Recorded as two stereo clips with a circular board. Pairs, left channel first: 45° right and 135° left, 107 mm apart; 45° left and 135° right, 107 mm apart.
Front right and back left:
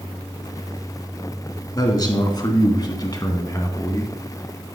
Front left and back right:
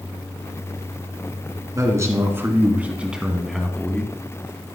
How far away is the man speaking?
About 2.5 m.